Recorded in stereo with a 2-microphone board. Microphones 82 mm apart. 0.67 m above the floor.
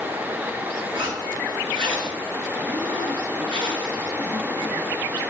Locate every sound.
0.9 s a zipper: 75° right (ahead or behind), 5 m